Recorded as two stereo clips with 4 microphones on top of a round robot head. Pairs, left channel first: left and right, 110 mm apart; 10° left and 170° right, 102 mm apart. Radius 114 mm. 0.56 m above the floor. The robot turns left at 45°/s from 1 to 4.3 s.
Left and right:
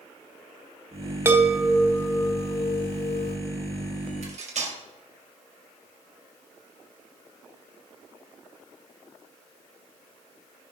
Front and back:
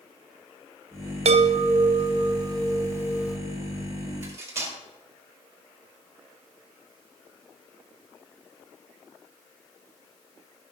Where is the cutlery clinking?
100° right, 2.0 m; by 4.8 s 105° right, 2.0 m.